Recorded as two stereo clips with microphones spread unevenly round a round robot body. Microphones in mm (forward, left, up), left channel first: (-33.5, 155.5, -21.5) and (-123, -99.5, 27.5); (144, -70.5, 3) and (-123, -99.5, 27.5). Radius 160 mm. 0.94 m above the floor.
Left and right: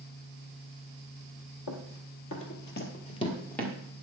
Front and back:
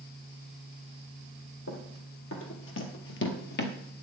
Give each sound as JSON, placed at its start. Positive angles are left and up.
{"t": 1.7, "sound": "running footsteps", "azimuth_deg": 55, "distance_m": 1.4}